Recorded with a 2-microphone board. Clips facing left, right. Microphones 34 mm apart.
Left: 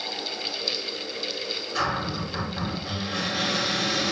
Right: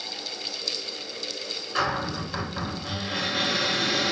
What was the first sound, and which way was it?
A cupboard door, 25° right (ahead or behind).